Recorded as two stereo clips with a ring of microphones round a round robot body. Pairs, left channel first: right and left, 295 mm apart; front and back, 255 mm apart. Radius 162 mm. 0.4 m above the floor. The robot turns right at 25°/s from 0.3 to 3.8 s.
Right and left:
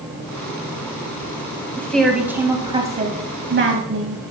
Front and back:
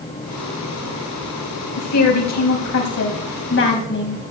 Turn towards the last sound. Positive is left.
turn(degrees=45)